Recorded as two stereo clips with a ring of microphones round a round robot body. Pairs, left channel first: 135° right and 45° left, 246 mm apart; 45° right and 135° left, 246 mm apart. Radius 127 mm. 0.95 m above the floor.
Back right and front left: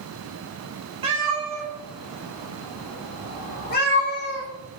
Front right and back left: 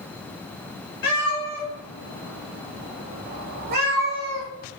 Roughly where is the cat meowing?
Ahead.